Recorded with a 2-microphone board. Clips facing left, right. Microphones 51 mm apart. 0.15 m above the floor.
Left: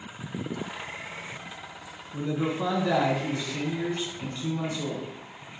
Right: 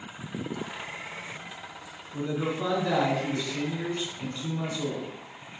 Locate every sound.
2.1 s a man speaking: centre (ahead or behind), 1.1 m